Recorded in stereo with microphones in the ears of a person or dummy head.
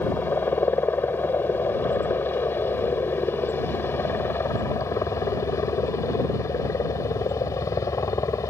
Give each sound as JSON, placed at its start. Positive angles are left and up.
{"t": 0.0, "sound": "a helicopter", "side_deg": 10}